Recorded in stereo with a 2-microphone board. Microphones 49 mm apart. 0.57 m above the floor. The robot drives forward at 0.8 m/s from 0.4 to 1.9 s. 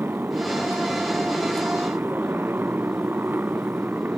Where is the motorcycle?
45° right (ahead or behind); by 4.2 s 40° right (ahead or behind).